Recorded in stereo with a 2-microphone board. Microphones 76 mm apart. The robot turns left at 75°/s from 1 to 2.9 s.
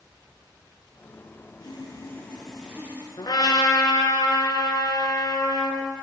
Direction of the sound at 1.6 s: 70° left.